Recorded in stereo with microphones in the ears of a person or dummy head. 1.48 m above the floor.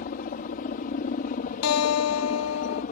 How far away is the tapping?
I don't hear tapping.